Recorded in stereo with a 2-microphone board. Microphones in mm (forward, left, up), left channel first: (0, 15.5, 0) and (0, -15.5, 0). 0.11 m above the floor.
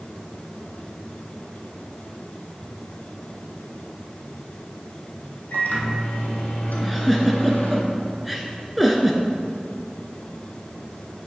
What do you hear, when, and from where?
5.5 s a microwave: 65° left (ahead or behind), 3 m
6.8 s a giggle: centre (ahead or behind), 1.2 m